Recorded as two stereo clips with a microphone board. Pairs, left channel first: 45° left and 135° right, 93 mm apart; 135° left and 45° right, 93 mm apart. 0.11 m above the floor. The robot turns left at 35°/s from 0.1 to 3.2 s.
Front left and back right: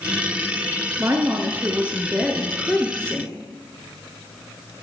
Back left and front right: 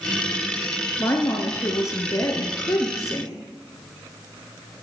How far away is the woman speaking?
About 1.4 m.